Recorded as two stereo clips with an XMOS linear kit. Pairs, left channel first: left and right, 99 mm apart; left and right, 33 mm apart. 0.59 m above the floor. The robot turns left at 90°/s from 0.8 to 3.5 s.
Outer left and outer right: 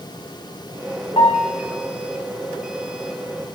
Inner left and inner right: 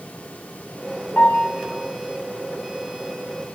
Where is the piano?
105° left, 1.6 m; by 1.5 s 75° left, 1.6 m.